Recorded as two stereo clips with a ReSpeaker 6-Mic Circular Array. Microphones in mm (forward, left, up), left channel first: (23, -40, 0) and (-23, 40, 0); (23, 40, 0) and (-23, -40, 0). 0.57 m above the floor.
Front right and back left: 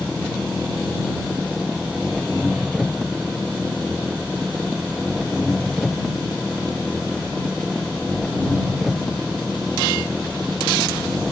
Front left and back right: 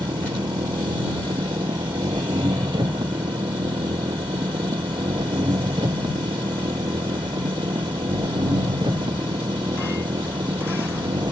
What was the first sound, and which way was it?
An engine running, 150° right.